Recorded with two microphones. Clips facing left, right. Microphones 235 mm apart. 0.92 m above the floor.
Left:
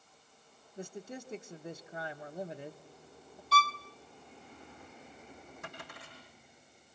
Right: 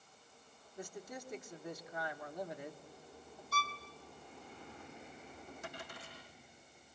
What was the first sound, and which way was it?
A man speaking, 25° left (ahead or behind).